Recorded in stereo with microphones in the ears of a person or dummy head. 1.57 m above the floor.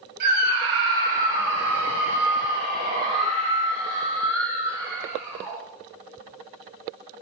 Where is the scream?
55° right (ahead or behind), 1.7 m; by 5.6 s 15° right (ahead or behind), 3 m.